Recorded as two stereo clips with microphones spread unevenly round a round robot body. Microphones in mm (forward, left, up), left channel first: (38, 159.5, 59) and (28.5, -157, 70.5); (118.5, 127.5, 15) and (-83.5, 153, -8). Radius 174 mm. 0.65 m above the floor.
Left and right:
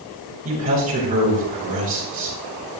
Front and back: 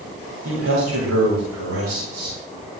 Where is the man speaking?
160° right, 8 m.